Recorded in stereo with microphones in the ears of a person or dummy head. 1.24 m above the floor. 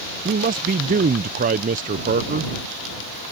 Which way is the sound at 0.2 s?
40° right (ahead or behind).